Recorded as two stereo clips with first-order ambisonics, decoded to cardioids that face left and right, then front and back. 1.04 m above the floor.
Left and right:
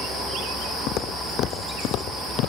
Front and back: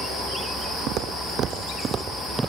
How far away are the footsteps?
About 2.5 m.